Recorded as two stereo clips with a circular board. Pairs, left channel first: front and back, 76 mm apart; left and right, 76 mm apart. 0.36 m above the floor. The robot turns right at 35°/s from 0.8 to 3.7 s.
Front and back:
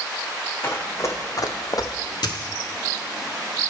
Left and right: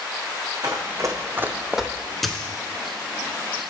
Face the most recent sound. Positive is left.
turn(degrees=55)